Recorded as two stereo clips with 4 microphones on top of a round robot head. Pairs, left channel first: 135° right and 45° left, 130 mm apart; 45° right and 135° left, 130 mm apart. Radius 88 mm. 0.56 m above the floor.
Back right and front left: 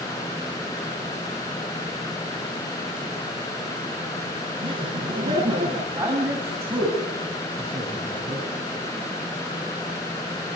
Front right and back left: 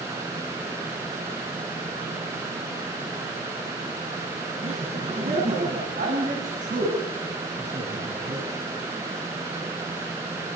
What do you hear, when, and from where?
4.6 s laughter: 95° left, 5 m; by 5.8 s 100° left, 6 m
6.0 s a man speaking: 115° left, 6 m